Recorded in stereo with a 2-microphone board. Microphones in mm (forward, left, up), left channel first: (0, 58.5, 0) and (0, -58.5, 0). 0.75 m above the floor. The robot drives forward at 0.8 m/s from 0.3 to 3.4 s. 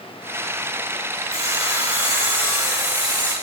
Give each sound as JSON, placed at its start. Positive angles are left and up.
{"t": 1.3, "sound": "sawing", "side_deg": 60, "distance_m": 3.0}